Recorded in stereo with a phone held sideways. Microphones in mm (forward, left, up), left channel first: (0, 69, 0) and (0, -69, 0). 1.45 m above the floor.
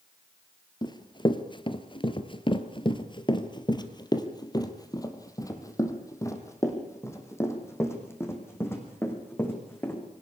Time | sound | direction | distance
0.8 | running footsteps | 30° left (ahead or behind) | 1.8 m